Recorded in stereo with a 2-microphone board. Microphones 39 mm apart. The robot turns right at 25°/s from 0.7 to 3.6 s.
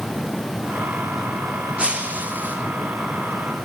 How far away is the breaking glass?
About 2.5 m.